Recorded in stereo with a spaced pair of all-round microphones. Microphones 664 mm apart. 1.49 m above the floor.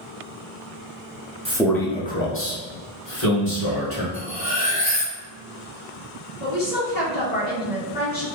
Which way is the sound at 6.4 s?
80° left.